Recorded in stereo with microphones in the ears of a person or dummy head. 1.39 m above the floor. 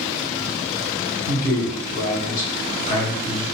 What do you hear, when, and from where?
1.3 s a man speaking: 70° left (ahead or behind), 1.7 m; by 3.5 s 5° right (ahead or behind), 0.8 m